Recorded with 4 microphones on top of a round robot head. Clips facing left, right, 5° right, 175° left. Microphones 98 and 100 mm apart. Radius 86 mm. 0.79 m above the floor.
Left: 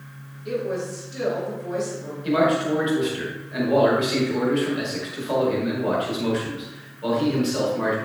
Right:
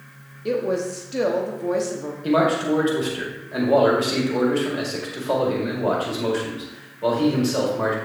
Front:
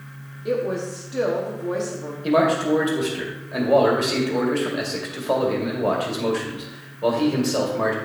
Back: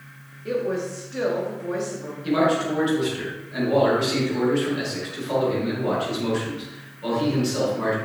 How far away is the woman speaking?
About 1.1 m.